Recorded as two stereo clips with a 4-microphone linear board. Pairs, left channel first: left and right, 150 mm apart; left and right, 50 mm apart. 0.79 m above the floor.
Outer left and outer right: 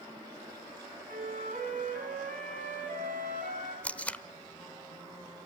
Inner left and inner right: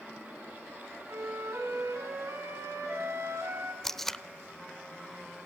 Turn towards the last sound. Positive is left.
turn(degrees=10)  # may be behind; listen again after turning